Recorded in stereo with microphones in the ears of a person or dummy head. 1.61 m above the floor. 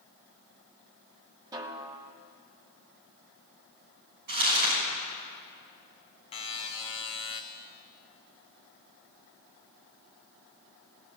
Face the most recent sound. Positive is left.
turn(degrees=30)  # may be behind; listen again after turning